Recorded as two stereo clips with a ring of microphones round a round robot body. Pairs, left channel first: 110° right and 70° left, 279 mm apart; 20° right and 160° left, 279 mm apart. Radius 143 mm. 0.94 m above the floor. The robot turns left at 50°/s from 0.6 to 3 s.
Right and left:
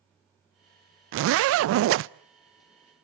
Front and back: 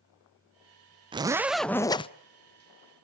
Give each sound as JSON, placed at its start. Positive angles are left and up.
{"t": 1.1, "sound": "a zipper", "azimuth_deg": 90, "distance_m": 0.5}